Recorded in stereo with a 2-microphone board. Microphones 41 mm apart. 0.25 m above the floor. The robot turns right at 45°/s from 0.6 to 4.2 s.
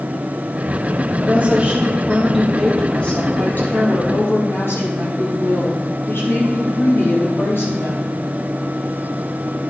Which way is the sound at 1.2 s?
55° right.